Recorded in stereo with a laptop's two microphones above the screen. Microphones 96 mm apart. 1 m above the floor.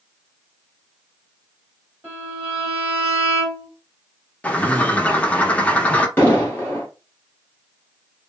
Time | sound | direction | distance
2.0 | a violin | 20° right (ahead or behind) | 1.7 m
4.4 | a bird | 15° left (ahead or behind) | 0.6 m
6.2 | an explosion | 20° left (ahead or behind) | 1.1 m